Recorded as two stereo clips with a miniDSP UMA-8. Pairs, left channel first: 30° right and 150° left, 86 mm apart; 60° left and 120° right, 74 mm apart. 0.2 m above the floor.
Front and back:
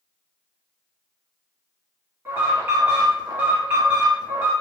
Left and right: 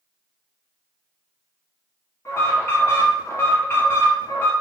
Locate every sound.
2.2 s an alarm: 100° left, 1.8 m